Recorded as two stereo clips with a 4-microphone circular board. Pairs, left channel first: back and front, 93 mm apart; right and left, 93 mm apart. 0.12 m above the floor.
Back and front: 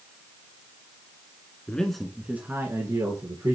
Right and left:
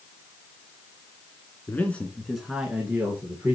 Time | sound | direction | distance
1.7 | a man speaking | 120° right | 1.5 m